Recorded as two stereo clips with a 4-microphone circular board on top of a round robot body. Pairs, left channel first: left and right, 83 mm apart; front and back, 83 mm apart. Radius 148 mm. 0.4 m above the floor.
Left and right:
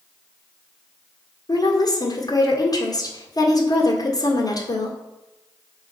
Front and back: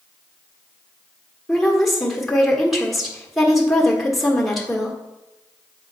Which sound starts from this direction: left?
A woman speaking, at 1.5 s.